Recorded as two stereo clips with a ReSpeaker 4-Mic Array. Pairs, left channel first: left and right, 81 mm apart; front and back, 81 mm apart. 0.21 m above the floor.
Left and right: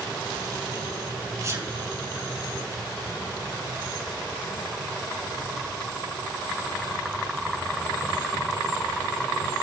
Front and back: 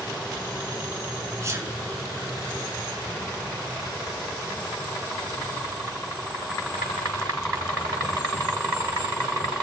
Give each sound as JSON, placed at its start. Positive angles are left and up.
{"t": 1.4, "sound": "a sneeze", "azimuth_deg": -135, "distance_m": 2.5}